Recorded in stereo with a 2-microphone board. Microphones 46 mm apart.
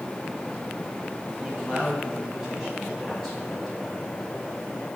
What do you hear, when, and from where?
1.4 s a man speaking: 25° right (ahead or behind), 6 m; by 4.2 s 15° left (ahead or behind), 5 m